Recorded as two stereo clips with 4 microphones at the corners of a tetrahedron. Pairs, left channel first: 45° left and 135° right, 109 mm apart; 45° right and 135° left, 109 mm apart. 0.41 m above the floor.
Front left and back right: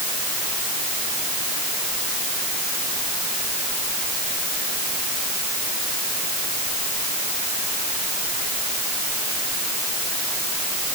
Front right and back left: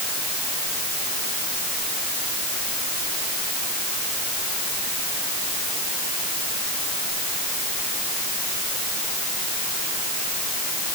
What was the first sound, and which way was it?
Only background noise.